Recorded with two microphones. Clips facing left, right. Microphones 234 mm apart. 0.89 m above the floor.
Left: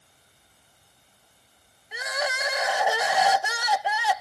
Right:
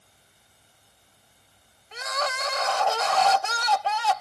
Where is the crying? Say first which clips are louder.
Left 1 dB; 10° left (ahead or behind).